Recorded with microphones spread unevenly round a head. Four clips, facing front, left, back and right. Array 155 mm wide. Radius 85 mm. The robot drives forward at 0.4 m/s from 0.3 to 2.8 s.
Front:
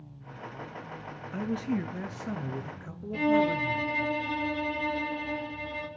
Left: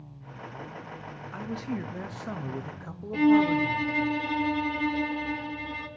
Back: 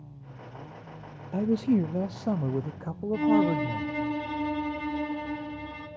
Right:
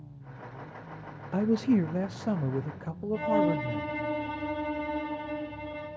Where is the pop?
I don't hear a pop.